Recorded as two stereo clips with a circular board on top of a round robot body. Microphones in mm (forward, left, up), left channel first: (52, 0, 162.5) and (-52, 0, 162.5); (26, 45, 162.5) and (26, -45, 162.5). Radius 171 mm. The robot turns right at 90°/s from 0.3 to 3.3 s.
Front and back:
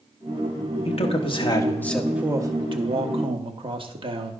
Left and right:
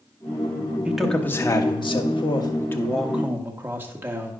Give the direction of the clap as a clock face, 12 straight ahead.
I don't hear a clap.